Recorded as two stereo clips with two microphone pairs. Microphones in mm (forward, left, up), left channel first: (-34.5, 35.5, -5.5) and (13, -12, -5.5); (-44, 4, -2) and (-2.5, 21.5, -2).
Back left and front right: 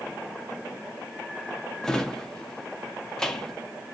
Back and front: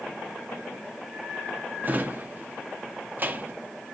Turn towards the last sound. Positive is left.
turn(degrees=60)